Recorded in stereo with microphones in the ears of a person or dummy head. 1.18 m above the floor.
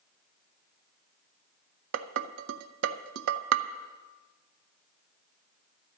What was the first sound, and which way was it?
Dishes clattering, 75° right (ahead or behind).